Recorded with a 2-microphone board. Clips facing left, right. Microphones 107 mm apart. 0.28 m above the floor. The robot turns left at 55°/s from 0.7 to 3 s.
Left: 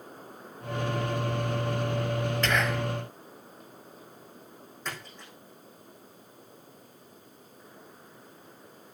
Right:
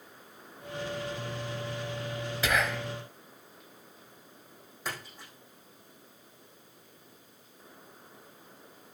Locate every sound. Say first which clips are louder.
2.4 s whispering: right 1 dB; 10° right (ahead or behind), 1.1 m; by 2.9 s 5° left (ahead or behind), 1.1 m
4.8 s a splash: even; 10° right (ahead or behind), 7 m